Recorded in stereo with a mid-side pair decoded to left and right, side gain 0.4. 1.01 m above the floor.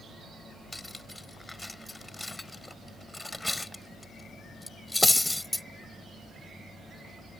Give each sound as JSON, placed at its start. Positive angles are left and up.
{"t": 0.7, "sound": "cutlery clinking", "azimuth_deg": 10}